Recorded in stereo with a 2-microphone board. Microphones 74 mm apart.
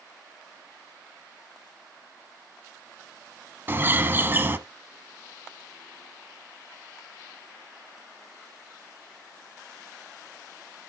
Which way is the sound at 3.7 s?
30° right (ahead or behind).